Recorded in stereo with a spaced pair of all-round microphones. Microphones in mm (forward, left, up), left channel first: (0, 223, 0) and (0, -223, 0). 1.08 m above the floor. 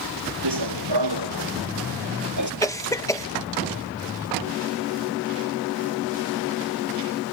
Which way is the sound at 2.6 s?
5° left (ahead or behind).